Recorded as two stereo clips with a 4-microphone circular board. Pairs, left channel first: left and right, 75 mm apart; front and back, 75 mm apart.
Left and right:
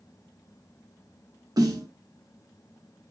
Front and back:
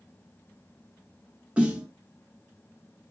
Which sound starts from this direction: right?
A snare drum, at 1.6 s.